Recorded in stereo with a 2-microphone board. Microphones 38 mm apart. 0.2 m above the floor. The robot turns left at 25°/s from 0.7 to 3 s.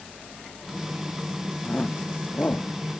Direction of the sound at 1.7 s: 35° left (ahead or behind).